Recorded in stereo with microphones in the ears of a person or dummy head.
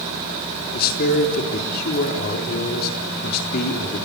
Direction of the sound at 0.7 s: 55° left (ahead or behind).